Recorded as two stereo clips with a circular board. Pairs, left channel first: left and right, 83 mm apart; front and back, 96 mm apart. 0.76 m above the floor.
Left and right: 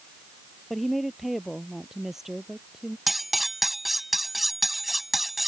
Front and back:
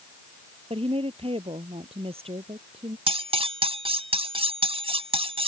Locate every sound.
0.7 s a woman speaking: straight behind; by 3.0 s 175° right
3.1 s cutlery clinking: straight behind